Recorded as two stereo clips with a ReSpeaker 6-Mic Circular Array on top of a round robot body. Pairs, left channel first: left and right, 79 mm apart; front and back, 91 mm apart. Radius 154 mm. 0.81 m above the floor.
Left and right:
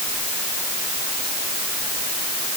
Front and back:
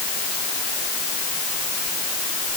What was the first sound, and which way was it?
Only background noise.